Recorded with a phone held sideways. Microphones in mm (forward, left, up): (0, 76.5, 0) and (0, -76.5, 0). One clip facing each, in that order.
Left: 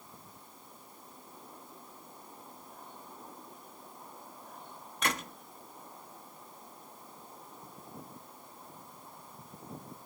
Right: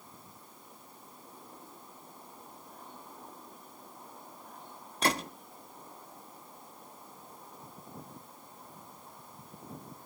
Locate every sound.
5.0 s a gunshot: 35° right (ahead or behind), 0.9 m